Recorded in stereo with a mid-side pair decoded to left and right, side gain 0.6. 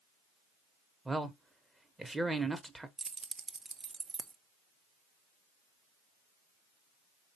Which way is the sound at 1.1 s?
10° right.